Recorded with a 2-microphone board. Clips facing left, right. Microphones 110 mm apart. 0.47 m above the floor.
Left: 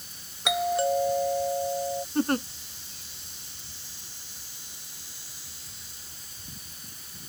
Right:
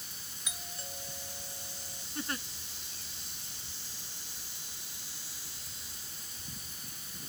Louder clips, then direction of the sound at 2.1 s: Left 13 dB; 50° left (ahead or behind).